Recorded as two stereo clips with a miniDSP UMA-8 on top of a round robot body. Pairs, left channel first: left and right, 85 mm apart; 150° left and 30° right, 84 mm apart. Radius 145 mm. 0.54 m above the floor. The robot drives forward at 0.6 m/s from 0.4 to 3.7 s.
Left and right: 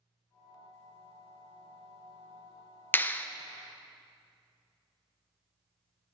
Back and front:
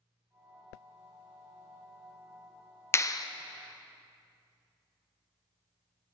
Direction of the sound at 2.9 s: 130° left.